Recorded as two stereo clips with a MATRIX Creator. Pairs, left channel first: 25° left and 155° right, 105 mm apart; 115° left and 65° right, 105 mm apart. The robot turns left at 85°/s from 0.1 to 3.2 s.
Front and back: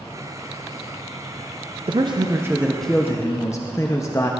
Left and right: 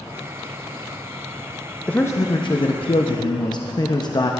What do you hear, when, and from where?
1.9 s a man speaking: 170° right, 0.7 m; by 4.3 s 75° left, 0.7 m